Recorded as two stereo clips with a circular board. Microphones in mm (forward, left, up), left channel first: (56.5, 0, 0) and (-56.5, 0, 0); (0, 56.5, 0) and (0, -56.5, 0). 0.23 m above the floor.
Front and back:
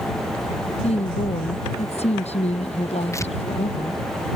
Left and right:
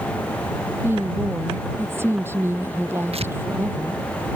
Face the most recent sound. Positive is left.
turn(degrees=-65)